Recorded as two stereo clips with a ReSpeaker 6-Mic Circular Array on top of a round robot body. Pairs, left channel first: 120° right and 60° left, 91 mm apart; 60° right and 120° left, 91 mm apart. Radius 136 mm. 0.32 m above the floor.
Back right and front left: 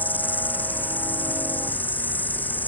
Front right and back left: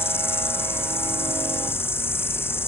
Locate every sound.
0.0 s an insect: 75° right